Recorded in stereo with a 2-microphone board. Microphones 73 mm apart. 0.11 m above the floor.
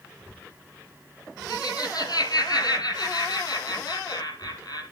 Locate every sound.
1.5 s laughter: 65° left (ahead or behind), 4 m